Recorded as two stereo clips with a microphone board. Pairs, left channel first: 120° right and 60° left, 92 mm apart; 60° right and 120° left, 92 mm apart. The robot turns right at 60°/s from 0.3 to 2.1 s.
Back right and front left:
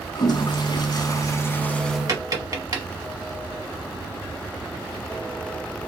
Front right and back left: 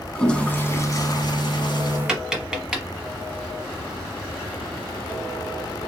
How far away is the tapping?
About 1.1 m.